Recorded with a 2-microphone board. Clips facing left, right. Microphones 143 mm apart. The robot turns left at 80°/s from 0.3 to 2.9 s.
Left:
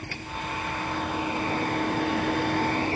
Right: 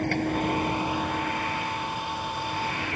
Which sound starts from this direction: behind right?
A vehicle, at 0.0 s.